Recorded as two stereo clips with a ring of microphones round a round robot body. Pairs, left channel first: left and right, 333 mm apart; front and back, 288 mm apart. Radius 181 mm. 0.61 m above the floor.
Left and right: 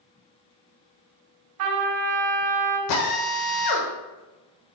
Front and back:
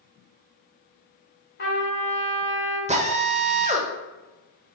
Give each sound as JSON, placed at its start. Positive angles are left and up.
{"t": 1.6, "sound": "a trumpet", "azimuth_deg": -60, "distance_m": 2.5}
{"t": 2.9, "sound": "a drill", "azimuth_deg": 110, "distance_m": 1.3}